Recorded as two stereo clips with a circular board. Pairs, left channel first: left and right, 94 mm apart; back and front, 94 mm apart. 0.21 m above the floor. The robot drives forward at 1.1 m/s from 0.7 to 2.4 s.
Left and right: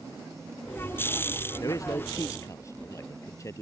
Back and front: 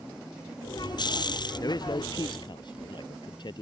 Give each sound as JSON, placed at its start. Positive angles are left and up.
{"t": 1.6, "sound": "a man speaking", "azimuth_deg": 135}